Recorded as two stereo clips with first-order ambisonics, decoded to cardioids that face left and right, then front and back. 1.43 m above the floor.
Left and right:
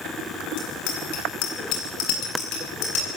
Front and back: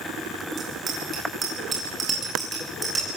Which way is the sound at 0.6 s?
115° left.